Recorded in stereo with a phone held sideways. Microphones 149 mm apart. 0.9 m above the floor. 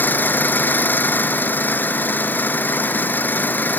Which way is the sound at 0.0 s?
15° left (ahead or behind).